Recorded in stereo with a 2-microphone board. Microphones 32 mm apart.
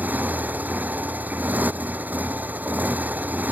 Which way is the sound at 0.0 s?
70° right (ahead or behind).